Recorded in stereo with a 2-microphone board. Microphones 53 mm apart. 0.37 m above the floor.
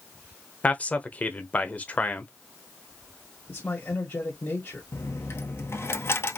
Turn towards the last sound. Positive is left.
turn(degrees=55)  # may be behind; listen again after turning